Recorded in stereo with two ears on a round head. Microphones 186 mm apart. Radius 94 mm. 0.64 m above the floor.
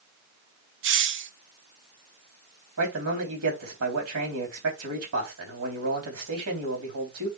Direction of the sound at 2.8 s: 70° right (ahead or behind).